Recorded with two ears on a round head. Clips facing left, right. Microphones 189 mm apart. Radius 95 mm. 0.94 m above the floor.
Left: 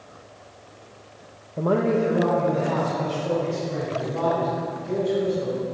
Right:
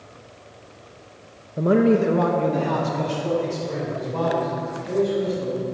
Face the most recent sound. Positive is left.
turn(degrees=-75)  # may be behind; listen again after turning